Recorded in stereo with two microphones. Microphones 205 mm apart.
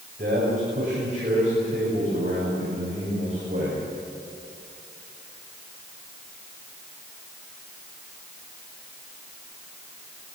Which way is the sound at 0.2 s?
40° right (ahead or behind).